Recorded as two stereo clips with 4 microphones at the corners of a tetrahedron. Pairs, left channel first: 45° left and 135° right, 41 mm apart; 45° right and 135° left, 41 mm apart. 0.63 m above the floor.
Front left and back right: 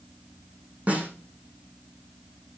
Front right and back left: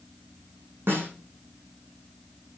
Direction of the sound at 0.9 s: 170° left.